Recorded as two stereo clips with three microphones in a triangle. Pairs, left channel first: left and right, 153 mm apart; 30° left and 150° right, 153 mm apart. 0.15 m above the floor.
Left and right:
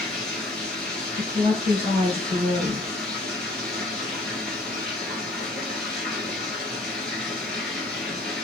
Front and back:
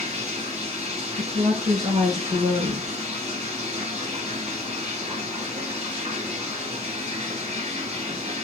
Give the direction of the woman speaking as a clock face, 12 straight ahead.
5 o'clock.